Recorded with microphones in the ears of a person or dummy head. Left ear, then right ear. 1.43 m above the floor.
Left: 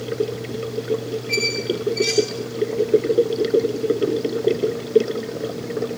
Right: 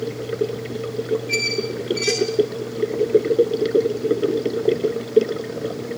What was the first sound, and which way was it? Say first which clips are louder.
A squeak: even; 25° right (ahead or behind).